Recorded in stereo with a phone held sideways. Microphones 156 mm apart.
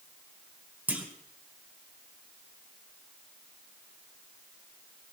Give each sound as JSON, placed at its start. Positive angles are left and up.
{"t": 0.9, "sound": "a clunk", "side_deg": -10, "distance_m": 1.9}